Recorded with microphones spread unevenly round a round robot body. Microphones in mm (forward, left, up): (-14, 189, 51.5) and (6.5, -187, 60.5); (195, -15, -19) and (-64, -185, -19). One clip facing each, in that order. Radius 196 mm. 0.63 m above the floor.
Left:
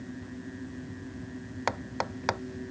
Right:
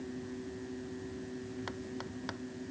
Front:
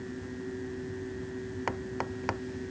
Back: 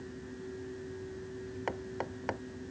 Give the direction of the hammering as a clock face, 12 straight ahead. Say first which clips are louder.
Left 5 dB, front 3 dB; 8 o'clock.